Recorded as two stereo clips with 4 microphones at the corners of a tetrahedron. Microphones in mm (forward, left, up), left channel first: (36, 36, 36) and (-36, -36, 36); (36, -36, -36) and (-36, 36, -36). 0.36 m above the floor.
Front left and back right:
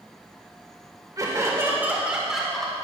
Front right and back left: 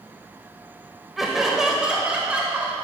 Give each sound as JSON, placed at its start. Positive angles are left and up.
{"t": 1.2, "sound": "laughter", "azimuth_deg": -140, "distance_m": 1.5}